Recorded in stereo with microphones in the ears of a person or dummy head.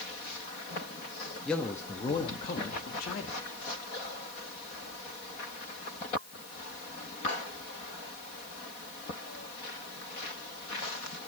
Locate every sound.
1.4 s a man speaking: 5° left (ahead or behind), 1.5 m; by 3.4 s 50° left (ahead or behind), 2.5 m